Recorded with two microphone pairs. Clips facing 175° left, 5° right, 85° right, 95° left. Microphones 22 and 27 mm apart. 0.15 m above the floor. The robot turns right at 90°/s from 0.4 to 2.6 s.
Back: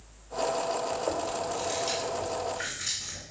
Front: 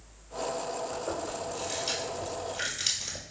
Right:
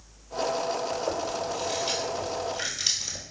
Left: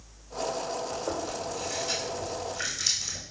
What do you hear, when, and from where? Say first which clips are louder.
0.9 s chewing: back 4 dB, right 3 dB; 175° left, 1.4 m; by 3.2 s 35° right, 1.4 m